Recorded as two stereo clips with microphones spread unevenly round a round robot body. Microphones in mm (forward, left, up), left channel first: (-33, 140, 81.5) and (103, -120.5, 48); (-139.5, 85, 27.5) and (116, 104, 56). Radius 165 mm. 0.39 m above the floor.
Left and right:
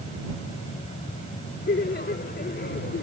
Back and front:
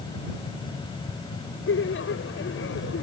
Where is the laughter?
175° left.